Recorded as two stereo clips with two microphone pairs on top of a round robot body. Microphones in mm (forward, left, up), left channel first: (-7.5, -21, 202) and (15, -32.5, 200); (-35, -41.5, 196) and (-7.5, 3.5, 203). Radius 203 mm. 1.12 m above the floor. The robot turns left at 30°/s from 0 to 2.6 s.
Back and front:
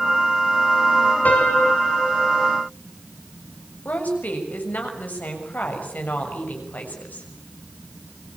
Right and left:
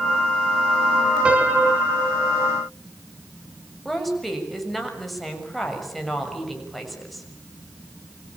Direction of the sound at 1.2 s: 125° left.